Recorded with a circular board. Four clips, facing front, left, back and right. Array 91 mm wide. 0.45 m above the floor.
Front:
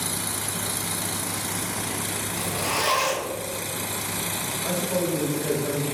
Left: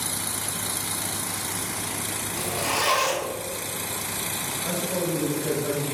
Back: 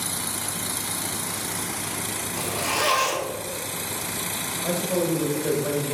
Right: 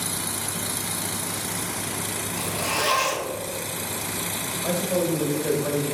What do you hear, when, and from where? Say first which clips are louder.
2.4 s a zipper: left 1 dB, back 1 dB; 150° left, 1.6 m
4.6 s a man speaking: right 4 dB, back 2 dB; 150° right, 1.7 m